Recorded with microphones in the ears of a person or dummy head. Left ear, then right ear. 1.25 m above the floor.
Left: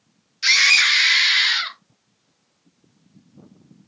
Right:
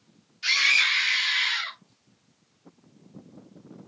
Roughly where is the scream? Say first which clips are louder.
Left 6 dB; left.